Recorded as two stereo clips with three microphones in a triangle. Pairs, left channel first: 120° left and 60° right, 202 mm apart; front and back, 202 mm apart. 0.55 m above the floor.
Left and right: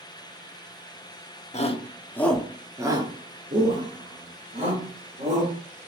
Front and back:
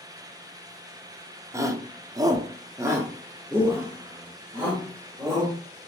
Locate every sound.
1.5 s a shout: 120° left, 0.7 m; by 5.5 s 95° right, 1.9 m